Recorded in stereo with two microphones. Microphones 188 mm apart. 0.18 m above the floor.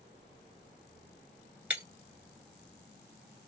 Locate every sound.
1.7 s breaking glass: 10° right (ahead or behind), 1.1 m